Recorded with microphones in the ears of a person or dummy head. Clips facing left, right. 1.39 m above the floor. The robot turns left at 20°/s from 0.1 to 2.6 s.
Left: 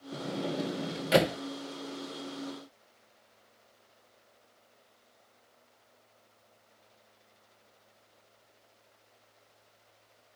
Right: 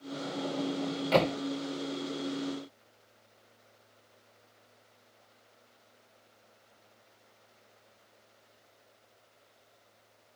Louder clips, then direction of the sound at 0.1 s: Left 1 dB; 35° left (ahead or behind).